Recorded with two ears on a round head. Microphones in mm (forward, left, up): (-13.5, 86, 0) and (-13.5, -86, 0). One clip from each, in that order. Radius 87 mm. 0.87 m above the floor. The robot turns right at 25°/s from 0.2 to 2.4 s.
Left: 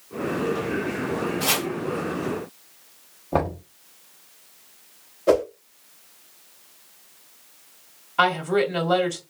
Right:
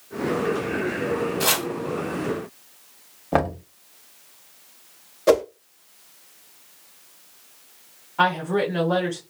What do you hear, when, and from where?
1.4 s chopping: 60° right (ahead or behind), 1.6 m; by 1.7 s 55° right (ahead or behind), 1.6 m
3.3 s knocking: 65° right (ahead or behind), 1.4 m
5.3 s a whoosh: 35° right (ahead or behind), 0.8 m
8.2 s a woman speaking: 80° left, 2.0 m